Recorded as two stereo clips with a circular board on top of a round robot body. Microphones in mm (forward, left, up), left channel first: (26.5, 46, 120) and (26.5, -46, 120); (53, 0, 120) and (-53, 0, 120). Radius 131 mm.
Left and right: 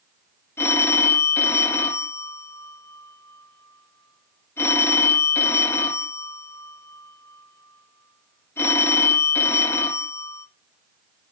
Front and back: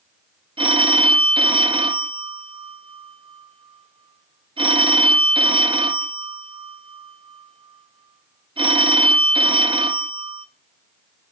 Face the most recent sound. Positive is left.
turn(degrees=150)